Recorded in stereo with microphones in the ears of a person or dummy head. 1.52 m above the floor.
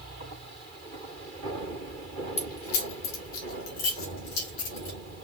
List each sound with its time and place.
2.4 s keys jangling: 35° left (ahead or behind), 1.2 m; by 5.0 s 75° left (ahead or behind), 3.5 m